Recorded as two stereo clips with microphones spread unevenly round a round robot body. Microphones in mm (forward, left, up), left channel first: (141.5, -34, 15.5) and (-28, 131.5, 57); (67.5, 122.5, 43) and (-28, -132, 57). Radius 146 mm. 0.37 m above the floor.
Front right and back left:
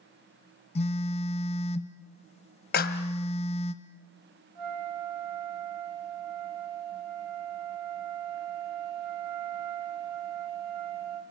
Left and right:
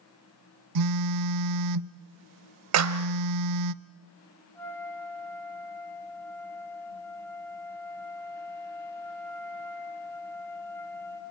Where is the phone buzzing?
110° right, 0.6 m.